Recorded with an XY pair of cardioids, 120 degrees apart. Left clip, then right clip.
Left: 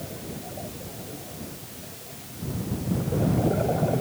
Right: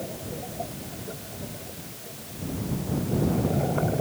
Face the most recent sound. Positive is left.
No sound to turn to.